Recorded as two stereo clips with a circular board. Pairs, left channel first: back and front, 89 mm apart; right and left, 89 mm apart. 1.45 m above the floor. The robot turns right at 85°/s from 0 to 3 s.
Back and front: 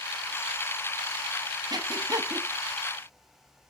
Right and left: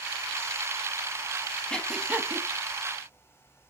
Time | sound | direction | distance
1.7 | breathing | 15° right | 1.1 m